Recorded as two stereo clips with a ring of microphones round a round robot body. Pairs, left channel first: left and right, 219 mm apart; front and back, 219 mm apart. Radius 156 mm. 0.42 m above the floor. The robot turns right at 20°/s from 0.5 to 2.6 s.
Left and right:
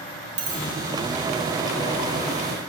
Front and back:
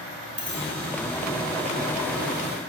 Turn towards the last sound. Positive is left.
turn(degrees=-80)